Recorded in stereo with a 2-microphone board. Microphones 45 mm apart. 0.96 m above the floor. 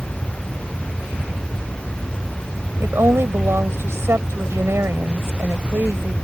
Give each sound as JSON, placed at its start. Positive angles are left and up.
{"t": 2.8, "sound": "a woman speaking", "side_deg": -85}